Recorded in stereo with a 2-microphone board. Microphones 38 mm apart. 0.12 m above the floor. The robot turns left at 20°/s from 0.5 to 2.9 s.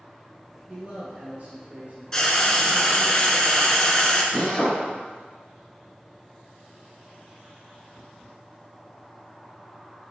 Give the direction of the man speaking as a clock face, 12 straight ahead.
1 o'clock.